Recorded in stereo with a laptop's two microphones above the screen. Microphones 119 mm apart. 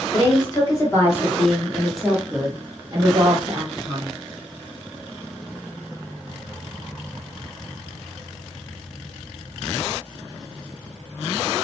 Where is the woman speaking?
35° left (ahead or behind), 1.3 m; by 4.2 s 50° right (ahead or behind), 1.2 m.